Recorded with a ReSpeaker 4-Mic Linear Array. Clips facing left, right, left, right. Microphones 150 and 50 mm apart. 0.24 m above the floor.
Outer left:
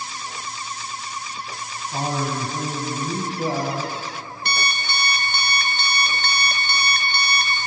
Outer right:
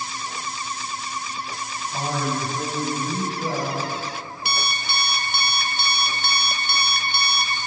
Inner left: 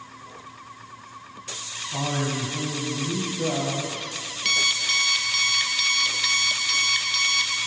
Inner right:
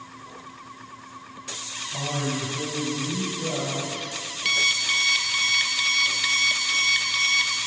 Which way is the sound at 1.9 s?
40° left (ahead or behind).